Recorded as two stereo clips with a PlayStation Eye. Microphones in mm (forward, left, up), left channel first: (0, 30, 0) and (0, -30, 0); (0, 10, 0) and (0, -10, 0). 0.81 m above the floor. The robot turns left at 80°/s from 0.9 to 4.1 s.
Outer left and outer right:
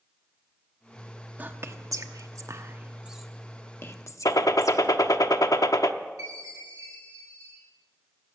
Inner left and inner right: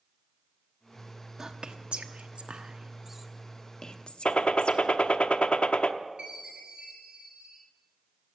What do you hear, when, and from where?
1.4 s whispering: 30° right (ahead or behind), 1.0 m; by 5.2 s 60° left (ahead or behind), 1.0 m
4.2 s a gunshot: 80° left, 0.7 m
6.2 s a chime: 75° right (ahead or behind), 4.5 m